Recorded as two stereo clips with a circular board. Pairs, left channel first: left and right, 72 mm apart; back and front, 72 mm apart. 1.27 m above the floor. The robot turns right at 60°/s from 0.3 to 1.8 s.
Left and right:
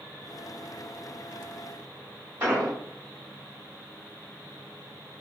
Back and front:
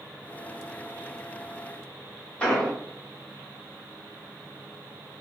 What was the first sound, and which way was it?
An explosion, 125° right.